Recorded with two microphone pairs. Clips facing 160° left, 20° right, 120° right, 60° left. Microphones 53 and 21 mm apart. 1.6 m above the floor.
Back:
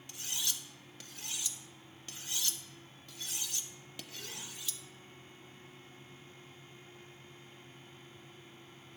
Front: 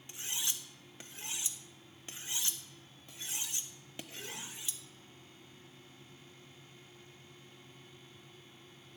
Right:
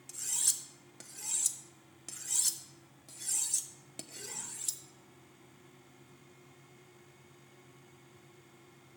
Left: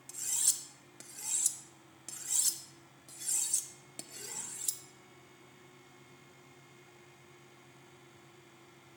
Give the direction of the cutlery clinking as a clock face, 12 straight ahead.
2 o'clock.